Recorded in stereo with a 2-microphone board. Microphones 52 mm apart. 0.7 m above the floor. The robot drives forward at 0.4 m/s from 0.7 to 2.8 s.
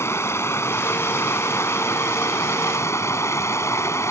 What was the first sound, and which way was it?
Running water, 60° left (ahead or behind).